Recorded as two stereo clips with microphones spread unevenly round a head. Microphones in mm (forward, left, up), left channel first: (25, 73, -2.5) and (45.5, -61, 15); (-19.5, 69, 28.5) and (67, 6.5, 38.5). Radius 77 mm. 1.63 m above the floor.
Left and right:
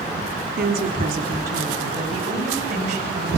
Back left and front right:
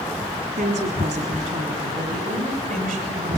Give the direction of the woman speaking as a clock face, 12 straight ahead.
2 o'clock.